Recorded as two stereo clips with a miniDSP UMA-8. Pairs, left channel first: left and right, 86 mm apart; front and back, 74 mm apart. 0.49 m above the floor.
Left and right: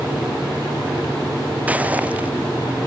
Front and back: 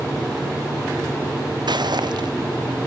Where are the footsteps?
165° right.